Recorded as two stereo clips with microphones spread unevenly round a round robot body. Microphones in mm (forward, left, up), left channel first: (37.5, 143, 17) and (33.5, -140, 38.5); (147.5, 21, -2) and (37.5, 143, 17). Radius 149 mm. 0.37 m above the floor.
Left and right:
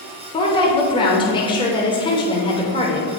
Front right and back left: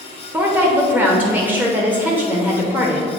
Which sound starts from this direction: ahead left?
A woman speaking, at 0.3 s.